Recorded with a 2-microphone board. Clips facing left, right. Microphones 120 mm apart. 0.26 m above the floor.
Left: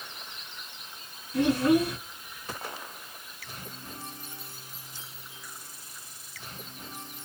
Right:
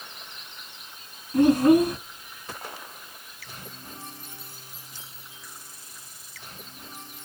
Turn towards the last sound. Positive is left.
turn(degrees=-50)  # may be behind; listen again after turning